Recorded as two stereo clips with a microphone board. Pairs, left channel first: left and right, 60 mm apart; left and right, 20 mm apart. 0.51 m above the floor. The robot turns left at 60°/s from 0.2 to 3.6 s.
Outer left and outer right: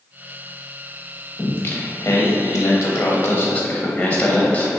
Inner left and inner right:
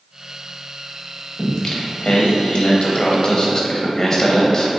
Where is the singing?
160° left, 0.7 m; by 4.8 s 25° left, 0.7 m.